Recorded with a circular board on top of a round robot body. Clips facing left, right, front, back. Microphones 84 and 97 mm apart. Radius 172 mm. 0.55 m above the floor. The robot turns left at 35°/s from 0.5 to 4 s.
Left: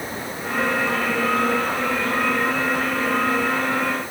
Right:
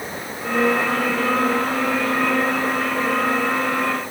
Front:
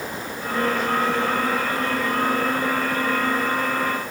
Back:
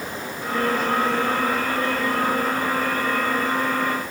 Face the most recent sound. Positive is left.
No sound to turn to.